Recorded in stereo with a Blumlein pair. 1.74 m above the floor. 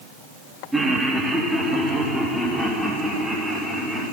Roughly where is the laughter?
Ahead.